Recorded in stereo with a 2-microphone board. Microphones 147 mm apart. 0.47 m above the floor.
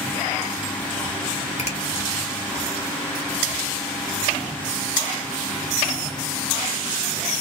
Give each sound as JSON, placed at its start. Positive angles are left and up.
{"t": 1.6, "sound": "a finger snap", "side_deg": 45, "distance_m": 1.7}